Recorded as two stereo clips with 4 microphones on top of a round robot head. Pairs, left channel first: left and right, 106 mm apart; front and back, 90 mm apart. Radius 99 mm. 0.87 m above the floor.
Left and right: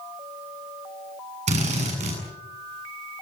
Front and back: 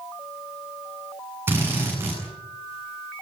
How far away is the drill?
About 8.5 m.